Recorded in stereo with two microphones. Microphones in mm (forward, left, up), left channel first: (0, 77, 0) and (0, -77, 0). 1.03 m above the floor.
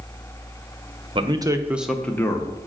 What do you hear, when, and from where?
1.1 s a man speaking: 35° right (ahead or behind), 0.8 m; by 2.6 s 30° left (ahead or behind), 0.9 m